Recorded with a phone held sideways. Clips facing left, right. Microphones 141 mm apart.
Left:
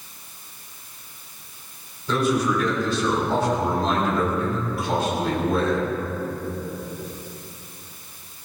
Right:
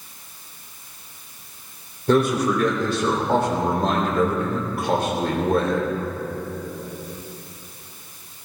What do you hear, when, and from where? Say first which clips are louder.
2.1 s a man speaking: right 3 dB; 60° right (ahead or behind), 3.5 m